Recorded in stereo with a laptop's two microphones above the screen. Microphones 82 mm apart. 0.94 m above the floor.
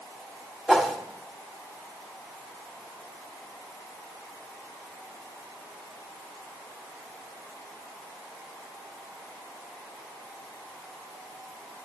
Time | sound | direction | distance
0.7 | a whoosh | centre (ahead or behind) | 0.8 m